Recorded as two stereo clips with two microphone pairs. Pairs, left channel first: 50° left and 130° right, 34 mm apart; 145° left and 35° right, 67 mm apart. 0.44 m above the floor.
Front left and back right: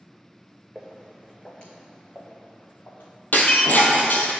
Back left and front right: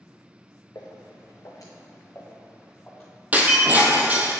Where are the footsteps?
145° left, 1.9 m; by 3.1 s 70° left, 2.5 m.